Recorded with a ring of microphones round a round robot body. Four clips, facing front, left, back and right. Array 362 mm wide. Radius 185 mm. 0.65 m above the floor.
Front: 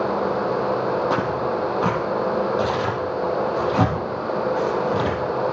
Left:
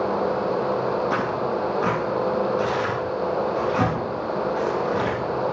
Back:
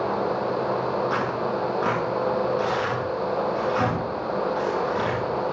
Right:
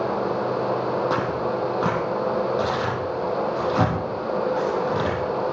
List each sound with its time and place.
1.1 s tearing paper: 30° right, 4 m